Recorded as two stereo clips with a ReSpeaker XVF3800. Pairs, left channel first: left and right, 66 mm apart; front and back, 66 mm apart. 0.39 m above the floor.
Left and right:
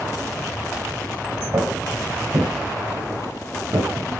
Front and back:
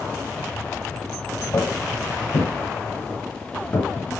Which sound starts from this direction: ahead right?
Footsteps, at 1.5 s.